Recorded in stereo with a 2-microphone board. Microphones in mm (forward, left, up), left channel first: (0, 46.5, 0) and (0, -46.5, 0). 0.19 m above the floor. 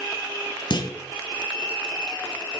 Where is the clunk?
55° left (ahead or behind), 1.2 m.